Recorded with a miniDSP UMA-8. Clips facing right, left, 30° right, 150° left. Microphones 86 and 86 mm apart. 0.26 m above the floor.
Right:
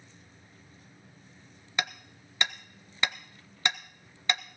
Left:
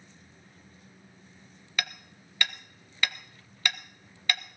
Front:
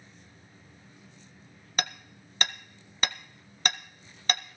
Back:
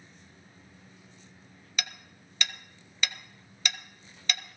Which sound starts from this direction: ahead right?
Hammering, at 1.8 s.